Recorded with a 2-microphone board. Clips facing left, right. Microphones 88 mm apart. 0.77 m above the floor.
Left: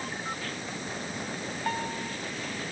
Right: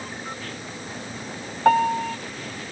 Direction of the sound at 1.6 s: 85° right.